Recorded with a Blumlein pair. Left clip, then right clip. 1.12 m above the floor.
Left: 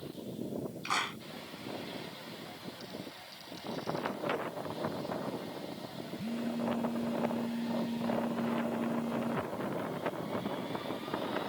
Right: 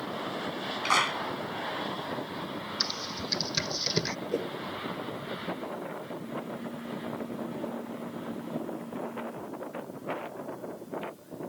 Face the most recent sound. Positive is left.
turn(degrees=70)